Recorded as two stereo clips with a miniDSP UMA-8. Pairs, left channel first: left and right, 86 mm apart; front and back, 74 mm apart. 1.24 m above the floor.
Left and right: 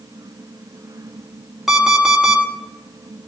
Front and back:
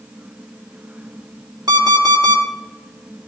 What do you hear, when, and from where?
1.7 s an alarm clock: straight behind, 1.8 m